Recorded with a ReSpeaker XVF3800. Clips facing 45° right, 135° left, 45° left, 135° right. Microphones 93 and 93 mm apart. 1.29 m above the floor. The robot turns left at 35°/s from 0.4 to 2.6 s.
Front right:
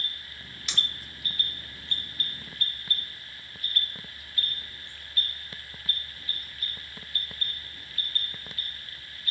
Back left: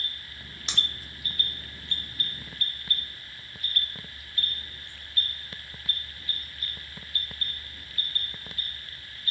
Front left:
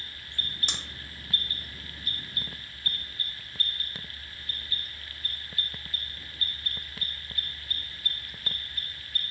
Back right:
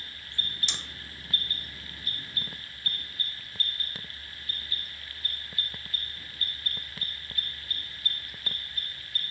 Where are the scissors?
80° left, 0.6 m.